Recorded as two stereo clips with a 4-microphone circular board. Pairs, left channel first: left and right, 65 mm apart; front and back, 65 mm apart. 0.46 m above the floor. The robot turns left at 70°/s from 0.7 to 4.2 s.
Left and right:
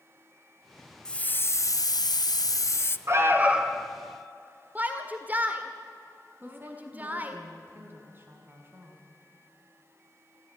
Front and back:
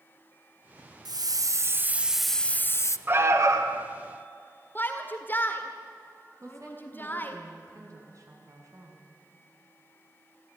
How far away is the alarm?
About 1.7 m.